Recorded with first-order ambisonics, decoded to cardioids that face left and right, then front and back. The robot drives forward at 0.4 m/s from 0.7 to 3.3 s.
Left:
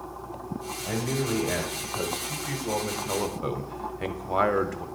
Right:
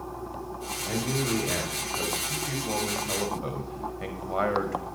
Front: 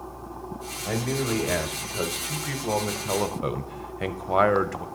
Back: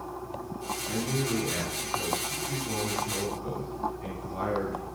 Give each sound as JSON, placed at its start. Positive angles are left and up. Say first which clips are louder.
{"t": 0.8, "sound": "a man speaking", "louder": "even, front 5 dB", "azimuth_deg": 5, "distance_m": 1.5}